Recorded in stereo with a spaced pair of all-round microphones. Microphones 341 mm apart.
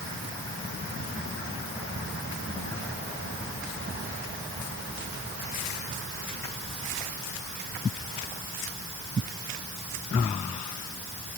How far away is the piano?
I don't hear a piano.